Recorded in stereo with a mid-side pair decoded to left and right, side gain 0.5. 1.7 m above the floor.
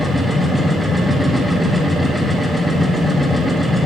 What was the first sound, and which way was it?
A machine running, straight ahead.